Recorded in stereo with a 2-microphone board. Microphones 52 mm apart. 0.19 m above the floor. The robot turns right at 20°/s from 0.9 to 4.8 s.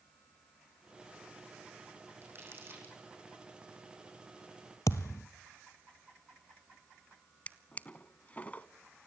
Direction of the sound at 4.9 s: 75° left (ahead or behind).